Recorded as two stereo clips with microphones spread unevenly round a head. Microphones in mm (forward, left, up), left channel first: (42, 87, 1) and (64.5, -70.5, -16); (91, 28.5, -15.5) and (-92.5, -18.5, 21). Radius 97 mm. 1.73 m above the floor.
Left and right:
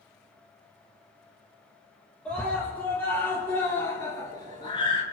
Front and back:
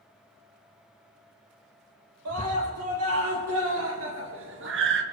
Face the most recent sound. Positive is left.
turn(degrees=165)